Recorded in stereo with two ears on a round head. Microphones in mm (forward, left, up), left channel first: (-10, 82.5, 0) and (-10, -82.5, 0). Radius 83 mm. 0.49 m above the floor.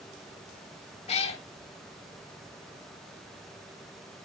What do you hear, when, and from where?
1.1 s a cat meowing: 35° left (ahead or behind), 0.8 m